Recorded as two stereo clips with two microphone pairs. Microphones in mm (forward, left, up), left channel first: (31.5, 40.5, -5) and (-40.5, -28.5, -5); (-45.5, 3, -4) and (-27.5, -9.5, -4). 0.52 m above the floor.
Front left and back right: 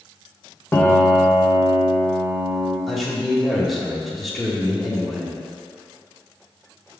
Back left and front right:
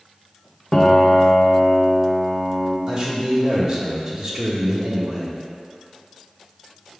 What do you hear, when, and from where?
0.7 s a piano: 105° left, 0.6 m
2.9 s a man speaking: 45° right, 1.1 m